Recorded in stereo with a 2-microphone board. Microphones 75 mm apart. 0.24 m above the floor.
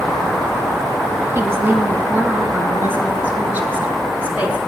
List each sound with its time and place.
1.4 s a woman speaking: 30° right (ahead or behind), 1.7 m; by 4.6 s 20° right (ahead or behind), 3 m